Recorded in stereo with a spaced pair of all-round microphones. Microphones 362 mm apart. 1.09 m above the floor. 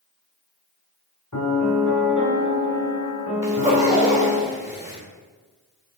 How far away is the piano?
About 1.6 m.